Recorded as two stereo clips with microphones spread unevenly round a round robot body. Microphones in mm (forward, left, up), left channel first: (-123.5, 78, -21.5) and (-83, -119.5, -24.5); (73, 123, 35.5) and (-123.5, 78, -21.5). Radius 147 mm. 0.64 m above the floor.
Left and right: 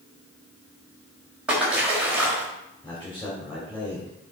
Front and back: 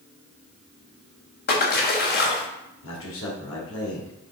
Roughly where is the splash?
Ahead.